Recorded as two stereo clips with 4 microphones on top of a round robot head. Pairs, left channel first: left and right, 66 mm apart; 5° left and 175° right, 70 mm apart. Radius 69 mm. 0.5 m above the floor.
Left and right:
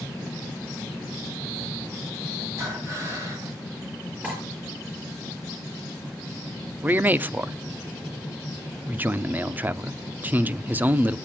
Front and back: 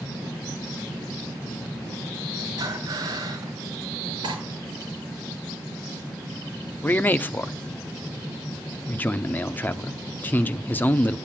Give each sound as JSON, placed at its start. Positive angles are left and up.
{"t": 2.6, "sound": "breathing", "azimuth_deg": -145, "distance_m": 3.5}
{"t": 4.2, "sound": "cutlery clinking", "azimuth_deg": -160, "distance_m": 6.5}
{"t": 6.8, "sound": "a man speaking", "azimuth_deg": -40, "distance_m": 0.8}